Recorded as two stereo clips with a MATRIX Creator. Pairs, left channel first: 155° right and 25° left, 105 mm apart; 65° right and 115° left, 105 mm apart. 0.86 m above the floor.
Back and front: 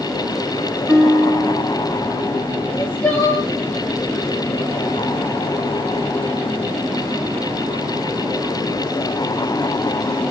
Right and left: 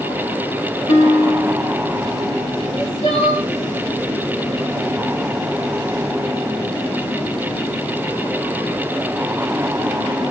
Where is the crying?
80° right, 3 m.